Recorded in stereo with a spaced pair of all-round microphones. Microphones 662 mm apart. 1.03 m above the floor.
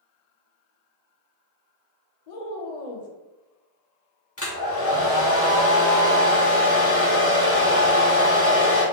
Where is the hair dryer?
20° left (ahead or behind), 0.9 m.